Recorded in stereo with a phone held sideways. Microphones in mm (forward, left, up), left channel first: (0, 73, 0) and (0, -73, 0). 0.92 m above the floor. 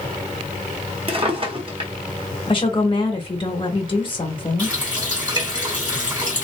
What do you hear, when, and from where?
1.1 s a drawer: 40° right (ahead or behind), 0.9 m
2.5 s a woman speaking: 35° left (ahead or behind), 1.0 m
4.6 s a running tap: 25° right (ahead or behind), 2.5 m